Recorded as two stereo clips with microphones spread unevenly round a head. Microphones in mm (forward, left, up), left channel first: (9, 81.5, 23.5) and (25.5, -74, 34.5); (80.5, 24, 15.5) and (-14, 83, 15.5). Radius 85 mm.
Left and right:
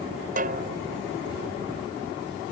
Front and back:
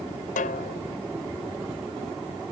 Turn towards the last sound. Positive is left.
turn(degrees=-50)